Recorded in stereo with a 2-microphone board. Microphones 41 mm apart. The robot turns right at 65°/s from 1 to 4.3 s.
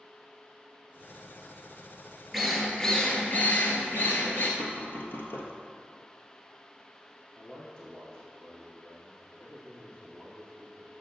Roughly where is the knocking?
Left.